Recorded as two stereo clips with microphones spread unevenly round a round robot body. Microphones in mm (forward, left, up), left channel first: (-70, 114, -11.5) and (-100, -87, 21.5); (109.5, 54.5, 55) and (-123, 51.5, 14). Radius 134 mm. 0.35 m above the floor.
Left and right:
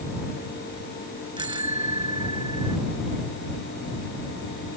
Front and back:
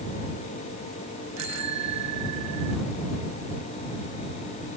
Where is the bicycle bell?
165° right.